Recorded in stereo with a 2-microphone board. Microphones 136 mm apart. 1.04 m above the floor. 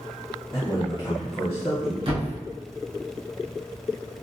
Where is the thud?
45° right (ahead or behind), 1.0 m.